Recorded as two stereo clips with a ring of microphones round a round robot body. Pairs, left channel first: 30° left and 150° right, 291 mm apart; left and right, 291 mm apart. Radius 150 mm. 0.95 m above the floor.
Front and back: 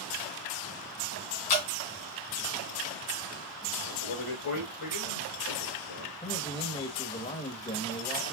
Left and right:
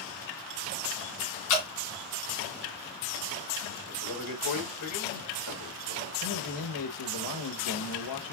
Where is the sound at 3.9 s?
65° left, 3.5 m.